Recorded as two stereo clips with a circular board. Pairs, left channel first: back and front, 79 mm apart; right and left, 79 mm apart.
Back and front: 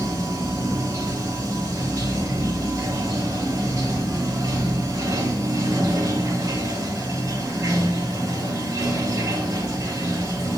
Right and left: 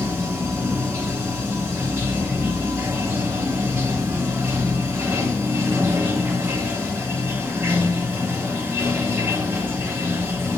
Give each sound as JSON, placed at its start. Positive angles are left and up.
{"t": 0.0, "sound": "running water", "azimuth_deg": 35, "distance_m": 1.2}